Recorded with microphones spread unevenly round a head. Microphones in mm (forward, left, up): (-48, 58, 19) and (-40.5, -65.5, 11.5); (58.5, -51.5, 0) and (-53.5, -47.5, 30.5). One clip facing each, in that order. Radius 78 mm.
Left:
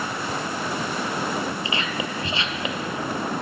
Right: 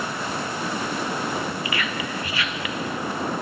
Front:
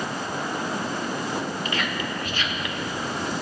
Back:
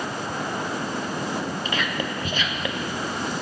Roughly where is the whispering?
Behind.